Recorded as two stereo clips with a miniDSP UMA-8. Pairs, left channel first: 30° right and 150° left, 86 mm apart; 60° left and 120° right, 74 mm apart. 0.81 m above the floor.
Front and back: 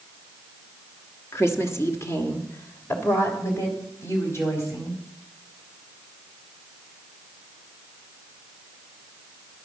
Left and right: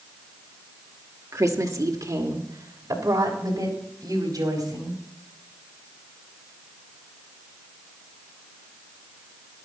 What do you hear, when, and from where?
1.3 s a woman speaking: 85° right, 1.5 m; by 5.0 s 90° right, 5 m